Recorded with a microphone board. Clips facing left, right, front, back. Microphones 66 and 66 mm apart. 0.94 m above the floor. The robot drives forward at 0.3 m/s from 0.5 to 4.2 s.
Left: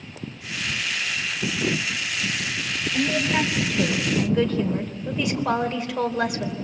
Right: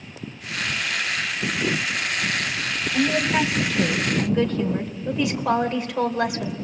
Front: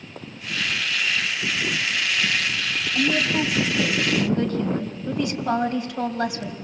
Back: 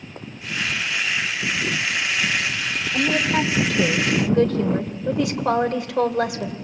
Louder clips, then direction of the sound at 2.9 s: Right 2 dB, back 2 dB; straight behind.